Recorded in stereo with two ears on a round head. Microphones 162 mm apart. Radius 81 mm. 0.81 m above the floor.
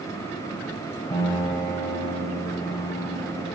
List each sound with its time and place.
1.1 s a piano: 20° left (ahead or behind), 4 m